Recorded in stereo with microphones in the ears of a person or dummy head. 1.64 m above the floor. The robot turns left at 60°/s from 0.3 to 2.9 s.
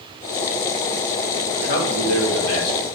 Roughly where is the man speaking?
Behind left.